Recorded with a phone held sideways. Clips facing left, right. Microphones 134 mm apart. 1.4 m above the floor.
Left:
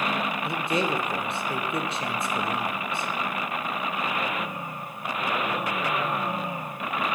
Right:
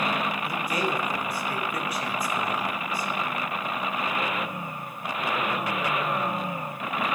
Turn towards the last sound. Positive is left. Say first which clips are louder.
# left 2 dB
turn(degrees=25)  # may be behind; listen again after turning